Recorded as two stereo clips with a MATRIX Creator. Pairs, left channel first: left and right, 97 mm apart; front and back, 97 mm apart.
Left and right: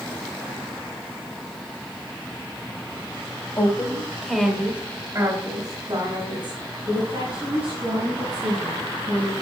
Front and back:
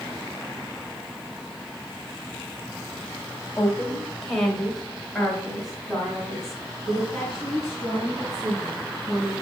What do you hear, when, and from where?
3.6 s a woman speaking: 75° left, 1.4 m; by 9.3 s 100° right, 5 m